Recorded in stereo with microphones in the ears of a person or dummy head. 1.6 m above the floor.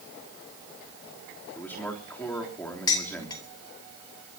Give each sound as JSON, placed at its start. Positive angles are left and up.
{"t": 1.6, "sound": "a man speaking", "side_deg": 20, "distance_m": 3.5}
{"t": 2.9, "sound": "dishes clattering", "side_deg": 15, "distance_m": 2.0}